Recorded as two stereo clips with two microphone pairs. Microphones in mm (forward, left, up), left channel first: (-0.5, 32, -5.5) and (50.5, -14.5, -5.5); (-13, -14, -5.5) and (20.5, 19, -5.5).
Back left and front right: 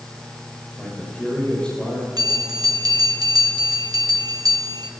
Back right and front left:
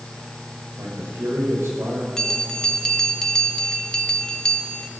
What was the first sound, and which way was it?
A man speaking, 60° left.